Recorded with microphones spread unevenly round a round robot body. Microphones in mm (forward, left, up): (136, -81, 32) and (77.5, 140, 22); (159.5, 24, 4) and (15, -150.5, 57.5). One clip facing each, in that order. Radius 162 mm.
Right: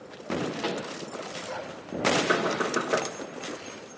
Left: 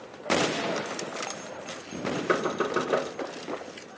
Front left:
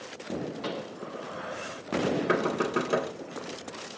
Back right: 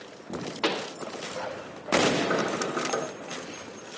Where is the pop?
155° right, 0.8 m.